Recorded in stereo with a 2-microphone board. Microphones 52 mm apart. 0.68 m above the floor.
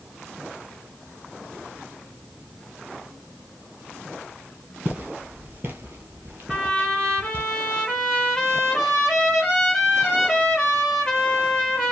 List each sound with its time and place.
4.8 s footsteps: 30° right (ahead or behind), 0.9 m; by 7.5 s 40° right (ahead or behind), 1.4 m
6.5 s a trumpet: 15° left (ahead or behind), 1.5 m